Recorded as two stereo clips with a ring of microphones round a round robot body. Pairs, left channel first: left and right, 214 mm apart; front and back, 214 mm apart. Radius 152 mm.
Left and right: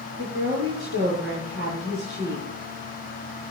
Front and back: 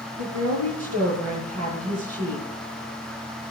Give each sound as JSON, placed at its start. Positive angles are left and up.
{"t": 0.2, "sound": "a woman speaking", "azimuth_deg": -140, "distance_m": 7.5}